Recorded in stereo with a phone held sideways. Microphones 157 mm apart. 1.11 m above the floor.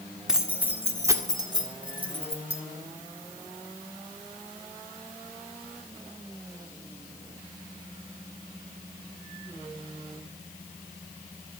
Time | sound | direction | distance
0.3 | keys jangling | 5° right (ahead or behind) | 2 m